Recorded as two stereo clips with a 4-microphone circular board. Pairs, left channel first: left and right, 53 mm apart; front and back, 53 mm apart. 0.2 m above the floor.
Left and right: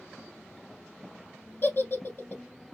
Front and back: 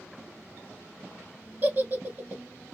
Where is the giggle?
130° left, 1.4 m.